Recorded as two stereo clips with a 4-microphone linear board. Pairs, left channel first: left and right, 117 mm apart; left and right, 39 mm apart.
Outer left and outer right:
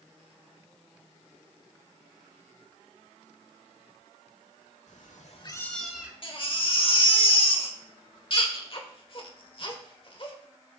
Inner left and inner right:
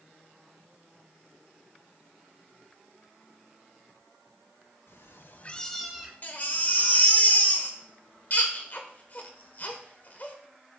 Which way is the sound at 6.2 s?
45° left (ahead or behind).